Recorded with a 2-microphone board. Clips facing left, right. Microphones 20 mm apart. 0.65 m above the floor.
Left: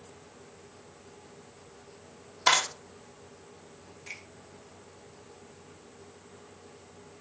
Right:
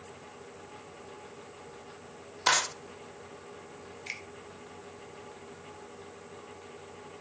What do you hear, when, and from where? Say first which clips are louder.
2.5 s a clap: left 2 dB; 10° left (ahead or behind), 1.8 m
4.1 s a finger snap: right 3 dB; 55° right (ahead or behind), 1.5 m